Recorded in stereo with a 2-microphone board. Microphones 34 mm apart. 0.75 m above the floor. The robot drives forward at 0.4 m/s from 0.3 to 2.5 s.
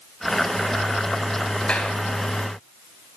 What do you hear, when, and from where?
1.6 s a clap: 35° left (ahead or behind), 3.5 m; by 1.9 s 30° left (ahead or behind), 4 m